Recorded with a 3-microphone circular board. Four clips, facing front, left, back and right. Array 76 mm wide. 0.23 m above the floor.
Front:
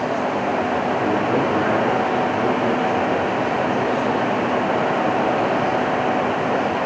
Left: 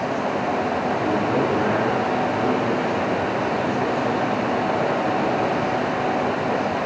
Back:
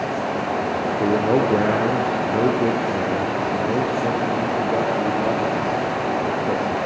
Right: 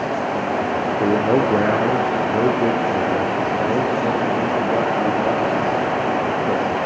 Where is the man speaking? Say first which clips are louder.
Right 7 dB, back 5 dB; 120° right, 5.5 m.